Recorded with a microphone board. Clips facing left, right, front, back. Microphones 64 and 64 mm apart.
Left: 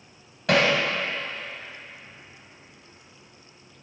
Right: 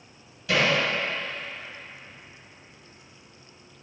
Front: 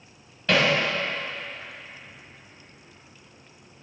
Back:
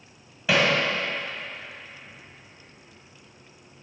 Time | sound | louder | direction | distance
0.5 | hammering | left 3 dB, even | 100° left | 2 m